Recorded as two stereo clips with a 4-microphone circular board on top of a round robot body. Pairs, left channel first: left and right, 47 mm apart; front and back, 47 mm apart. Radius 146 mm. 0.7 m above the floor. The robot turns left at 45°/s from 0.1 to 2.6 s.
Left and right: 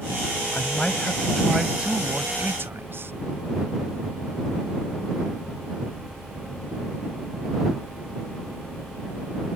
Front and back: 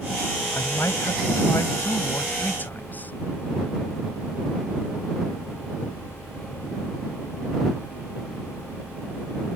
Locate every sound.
0.5 s a man speaking: 40° left; by 3.1 s 55° right